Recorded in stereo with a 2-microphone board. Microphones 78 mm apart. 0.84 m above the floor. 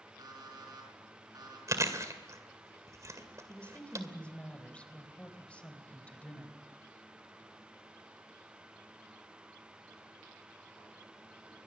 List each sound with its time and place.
0.2 s an alarm clock: 55° right (ahead or behind), 6 m
1.7 s chewing: 40° right (ahead or behind), 2 m
3.5 s a woman speaking: 15° left (ahead or behind), 3.5 m